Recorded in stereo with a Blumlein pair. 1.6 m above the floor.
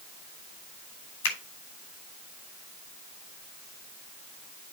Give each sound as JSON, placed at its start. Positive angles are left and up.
{"t": 1.2, "sound": "a finger snap", "azimuth_deg": 55, "distance_m": 3.0}